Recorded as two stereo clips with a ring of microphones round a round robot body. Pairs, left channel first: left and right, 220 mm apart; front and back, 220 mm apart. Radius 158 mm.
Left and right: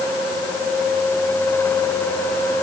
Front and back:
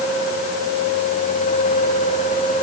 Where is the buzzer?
I don't hear a buzzer.